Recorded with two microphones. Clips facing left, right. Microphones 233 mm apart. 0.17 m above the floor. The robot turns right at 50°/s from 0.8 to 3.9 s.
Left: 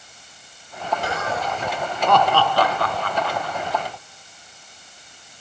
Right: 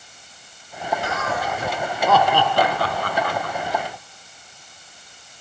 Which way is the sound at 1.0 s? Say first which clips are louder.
Even; 40° left (ahead or behind).